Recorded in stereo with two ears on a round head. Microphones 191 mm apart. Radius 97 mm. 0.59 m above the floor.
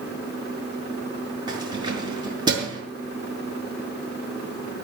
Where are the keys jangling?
20° right (ahead or behind), 5.5 m.